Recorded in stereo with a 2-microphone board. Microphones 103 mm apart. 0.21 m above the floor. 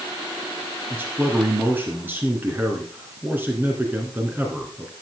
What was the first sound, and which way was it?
A man speaking, 20° right (ahead or behind).